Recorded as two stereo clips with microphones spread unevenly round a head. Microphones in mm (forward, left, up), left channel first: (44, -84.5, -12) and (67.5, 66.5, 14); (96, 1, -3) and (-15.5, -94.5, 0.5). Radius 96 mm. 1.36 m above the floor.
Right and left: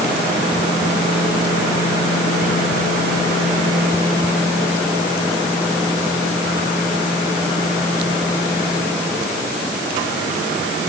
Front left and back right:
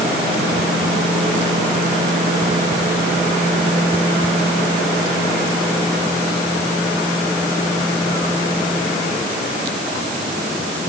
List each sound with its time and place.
Only background noise.